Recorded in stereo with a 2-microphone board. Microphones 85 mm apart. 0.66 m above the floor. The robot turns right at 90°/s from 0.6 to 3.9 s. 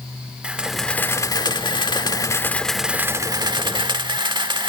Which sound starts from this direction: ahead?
A camera shutter, at 0.4 s.